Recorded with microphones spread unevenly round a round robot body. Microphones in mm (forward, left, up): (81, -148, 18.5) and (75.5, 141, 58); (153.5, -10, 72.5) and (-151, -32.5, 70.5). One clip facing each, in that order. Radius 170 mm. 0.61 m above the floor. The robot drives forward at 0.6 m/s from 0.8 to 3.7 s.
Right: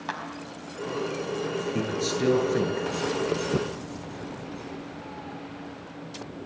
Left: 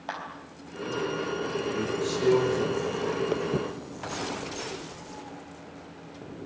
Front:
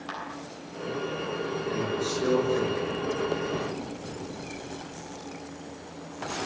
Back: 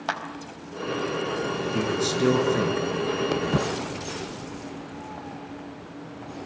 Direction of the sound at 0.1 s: 165° right.